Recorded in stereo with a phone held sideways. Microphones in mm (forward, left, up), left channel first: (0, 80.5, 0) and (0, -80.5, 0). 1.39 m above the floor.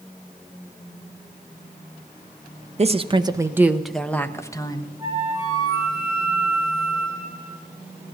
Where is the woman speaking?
40° right (ahead or behind), 0.9 m; by 4.9 s 25° left (ahead or behind), 1.3 m.